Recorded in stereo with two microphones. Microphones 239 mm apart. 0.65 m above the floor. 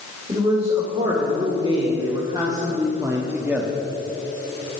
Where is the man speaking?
25° right (ahead or behind), 3 m; by 3.8 s 5° right (ahead or behind), 1.1 m.